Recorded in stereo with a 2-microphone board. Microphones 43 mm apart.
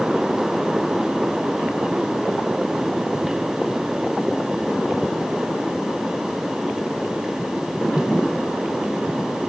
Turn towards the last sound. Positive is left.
No sound to turn to.